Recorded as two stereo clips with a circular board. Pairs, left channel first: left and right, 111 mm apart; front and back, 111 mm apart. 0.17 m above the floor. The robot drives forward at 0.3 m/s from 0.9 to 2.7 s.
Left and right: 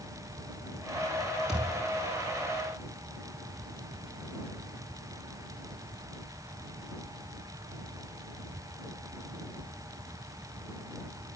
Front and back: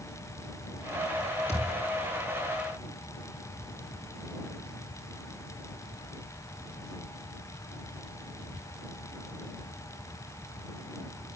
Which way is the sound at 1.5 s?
5° right.